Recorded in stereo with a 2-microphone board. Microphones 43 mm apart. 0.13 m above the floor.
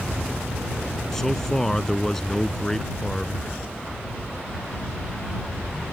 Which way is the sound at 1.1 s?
10° left (ahead or behind).